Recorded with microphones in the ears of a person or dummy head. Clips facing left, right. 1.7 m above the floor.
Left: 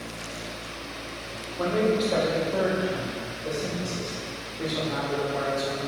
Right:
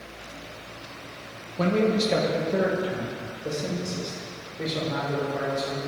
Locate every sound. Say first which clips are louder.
1.6 s a man speaking: right 1 dB; 40° right (ahead or behind), 1.1 m; by 5.8 s 10° right (ahead or behind), 3 m